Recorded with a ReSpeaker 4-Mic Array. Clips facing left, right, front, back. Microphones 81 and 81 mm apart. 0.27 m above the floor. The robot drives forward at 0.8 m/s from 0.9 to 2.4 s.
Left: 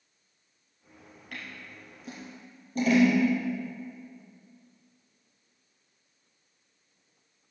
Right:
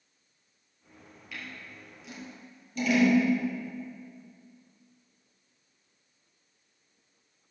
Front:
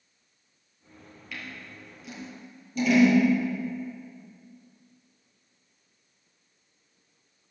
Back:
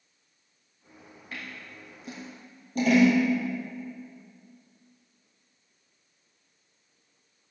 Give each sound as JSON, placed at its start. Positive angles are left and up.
{"t": 1.3, "sound": "scissors", "azimuth_deg": 130, "distance_m": 3.0}